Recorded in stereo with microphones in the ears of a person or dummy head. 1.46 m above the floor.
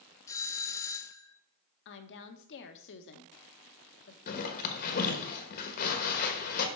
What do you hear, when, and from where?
0.3 s a doorbell: 15° left (ahead or behind), 0.7 m
1.9 s a woman speaking: 60° left (ahead or behind), 1.0 m
4.3 s a zipper: 50° left (ahead or behind), 1.3 m